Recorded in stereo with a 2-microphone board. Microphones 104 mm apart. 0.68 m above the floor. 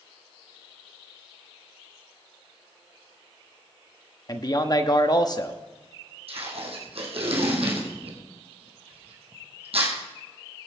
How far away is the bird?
I don't hear a bird.